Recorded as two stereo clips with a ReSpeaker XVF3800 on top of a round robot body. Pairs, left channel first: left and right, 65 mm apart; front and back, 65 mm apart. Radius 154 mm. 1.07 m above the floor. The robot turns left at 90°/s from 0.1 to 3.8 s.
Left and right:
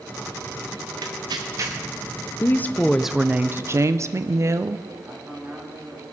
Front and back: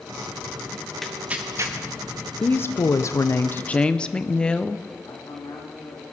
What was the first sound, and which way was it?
Tearing paper, 85° right.